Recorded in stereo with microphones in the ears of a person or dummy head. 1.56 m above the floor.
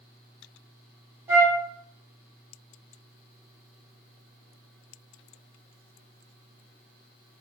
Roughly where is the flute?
Centre.